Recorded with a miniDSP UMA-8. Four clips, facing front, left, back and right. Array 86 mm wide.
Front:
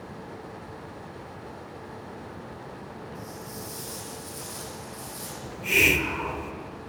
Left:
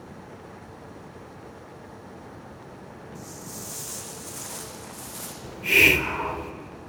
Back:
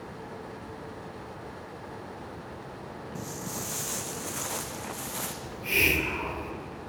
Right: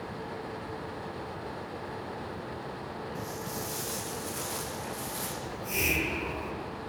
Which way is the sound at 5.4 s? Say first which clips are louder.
Left 12 dB, front 4 dB; 75° left.